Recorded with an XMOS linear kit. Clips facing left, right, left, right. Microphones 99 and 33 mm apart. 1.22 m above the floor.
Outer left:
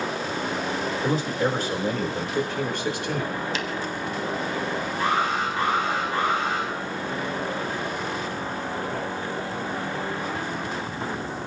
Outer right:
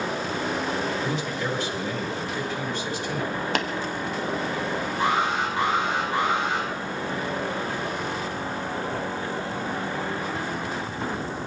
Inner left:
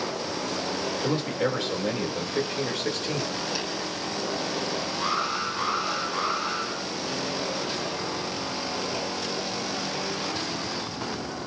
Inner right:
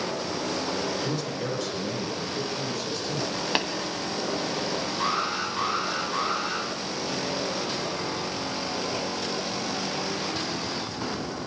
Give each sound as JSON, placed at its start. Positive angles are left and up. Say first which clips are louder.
{"t": 1.0, "sound": "a man speaking", "louder": "outer left 4 dB, inner left 4 dB", "side_deg": 40, "distance_m": 4.0}
{"t": 3.5, "sound": "tapping", "louder": "outer right 4 dB, inner right 5 dB", "side_deg": -60, "distance_m": 1.4}
{"t": 5.0, "sound": "an alarm", "louder": "even, even", "side_deg": -20, "distance_m": 7.5}